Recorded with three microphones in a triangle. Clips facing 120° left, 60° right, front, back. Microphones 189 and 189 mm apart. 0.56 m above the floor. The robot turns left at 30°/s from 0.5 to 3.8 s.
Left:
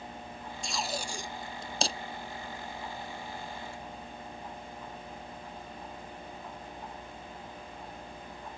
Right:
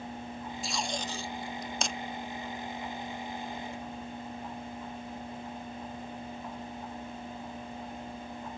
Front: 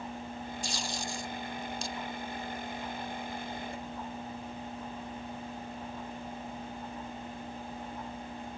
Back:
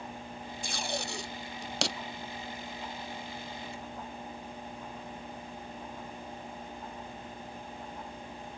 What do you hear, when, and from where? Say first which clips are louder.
0.6 s tape being pulled: even, back 5 dB; 145° right; by 2.0 s 175° left